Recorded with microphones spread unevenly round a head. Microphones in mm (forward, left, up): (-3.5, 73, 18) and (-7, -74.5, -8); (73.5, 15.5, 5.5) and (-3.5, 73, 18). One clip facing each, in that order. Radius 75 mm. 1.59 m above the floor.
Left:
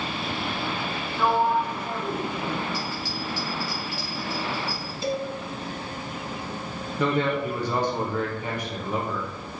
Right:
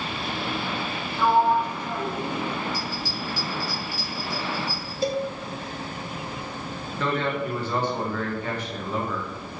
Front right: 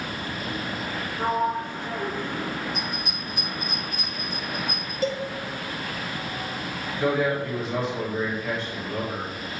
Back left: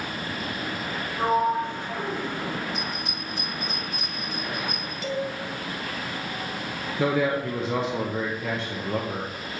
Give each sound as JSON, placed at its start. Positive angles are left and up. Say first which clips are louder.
{"t": 1.2, "sound": "a sliding door", "louder": "right 2 dB, back left 2 dB", "azimuth_deg": -150, "distance_m": 2.0}
{"t": 2.7, "sound": "a bell", "louder": "even, even", "azimuth_deg": -145, "distance_m": 3.5}
{"t": 5.0, "sound": "a cowbell", "louder": "right 3 dB, front right 3 dB", "azimuth_deg": -65, "distance_m": 0.9}
{"t": 7.0, "sound": "a man speaking", "louder": "left 2 dB, even", "azimuth_deg": 160, "distance_m": 1.1}